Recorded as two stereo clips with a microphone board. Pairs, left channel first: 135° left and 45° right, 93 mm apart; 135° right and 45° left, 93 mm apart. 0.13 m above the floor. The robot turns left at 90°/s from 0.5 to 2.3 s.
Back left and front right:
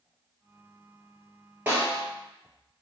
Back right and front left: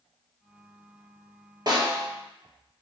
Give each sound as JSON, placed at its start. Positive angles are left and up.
{"t": 1.7, "sound": "a snare drum", "azimuth_deg": 25, "distance_m": 1.4}